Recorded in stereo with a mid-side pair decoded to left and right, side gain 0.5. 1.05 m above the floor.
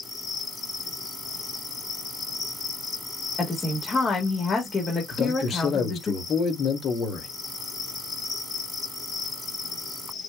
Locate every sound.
0.0 s an insect: 45° left, 2 m
3.4 s a woman speaking: 35° left, 1.7 m
5.1 s a man speaking: 55° left, 2 m